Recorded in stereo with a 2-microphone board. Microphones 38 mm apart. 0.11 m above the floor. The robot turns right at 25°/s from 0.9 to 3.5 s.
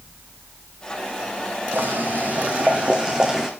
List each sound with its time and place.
1.7 s boiling: 55° right, 2.5 m; by 3.5 s 10° right, 2.5 m